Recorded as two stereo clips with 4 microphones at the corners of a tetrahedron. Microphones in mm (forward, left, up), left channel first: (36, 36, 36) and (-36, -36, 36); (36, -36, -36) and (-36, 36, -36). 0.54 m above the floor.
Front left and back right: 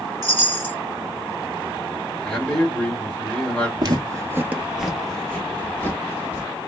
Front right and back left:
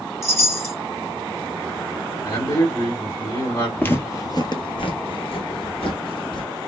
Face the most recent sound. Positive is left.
turn(degrees=-15)